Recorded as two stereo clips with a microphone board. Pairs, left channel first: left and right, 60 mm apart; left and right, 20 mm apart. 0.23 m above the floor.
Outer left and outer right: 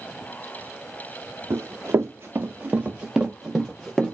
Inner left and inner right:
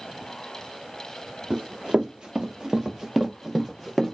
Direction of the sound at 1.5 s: 65° right (ahead or behind).